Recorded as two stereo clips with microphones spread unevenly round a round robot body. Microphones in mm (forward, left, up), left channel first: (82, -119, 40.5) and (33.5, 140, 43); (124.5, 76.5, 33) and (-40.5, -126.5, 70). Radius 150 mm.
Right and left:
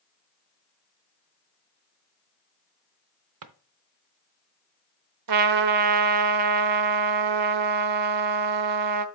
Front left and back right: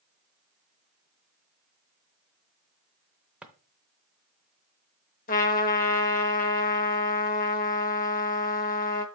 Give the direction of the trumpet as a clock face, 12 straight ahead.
8 o'clock.